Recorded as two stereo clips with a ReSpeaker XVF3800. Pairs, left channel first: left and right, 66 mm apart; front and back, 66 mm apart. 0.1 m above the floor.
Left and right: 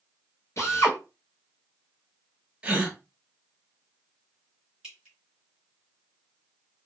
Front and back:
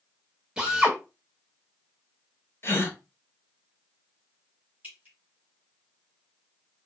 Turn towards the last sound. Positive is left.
turn(degrees=-160)